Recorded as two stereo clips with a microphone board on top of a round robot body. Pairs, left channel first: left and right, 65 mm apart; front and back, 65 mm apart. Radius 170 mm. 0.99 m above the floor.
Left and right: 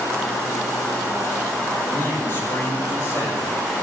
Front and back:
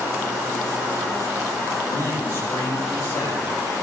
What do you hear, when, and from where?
1.9 s a man speaking: 35° left, 4.5 m; by 3.5 s 40° left, 6.5 m